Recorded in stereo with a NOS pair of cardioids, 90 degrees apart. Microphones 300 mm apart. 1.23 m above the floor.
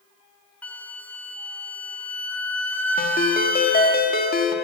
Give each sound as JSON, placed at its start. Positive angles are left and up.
{"t": 0.6, "sound": "a flute", "azimuth_deg": 5, "distance_m": 1.0}
{"t": 3.0, "sound": "a ringtone", "azimuth_deg": 30, "distance_m": 1.5}